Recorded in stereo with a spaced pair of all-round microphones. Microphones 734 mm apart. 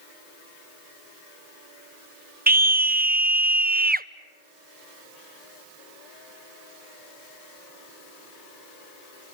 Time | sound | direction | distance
2.5 | a scream | 15° right (ahead or behind) | 0.5 m